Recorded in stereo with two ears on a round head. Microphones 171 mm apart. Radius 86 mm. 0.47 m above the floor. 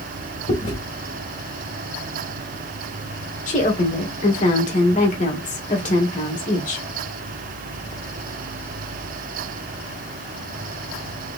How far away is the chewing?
About 2 m.